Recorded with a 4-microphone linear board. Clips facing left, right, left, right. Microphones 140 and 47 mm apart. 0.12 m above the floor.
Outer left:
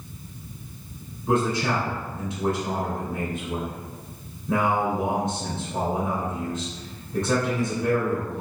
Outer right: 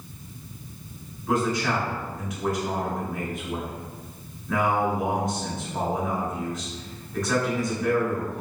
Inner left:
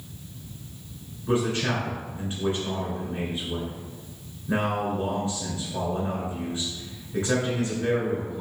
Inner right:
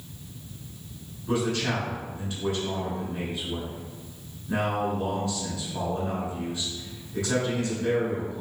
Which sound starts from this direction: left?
A man speaking, at 1.3 s.